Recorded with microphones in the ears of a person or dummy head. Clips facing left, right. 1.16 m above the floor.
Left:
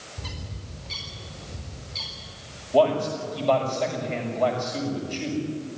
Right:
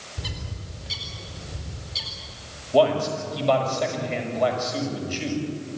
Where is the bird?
10° right (ahead or behind), 4 m.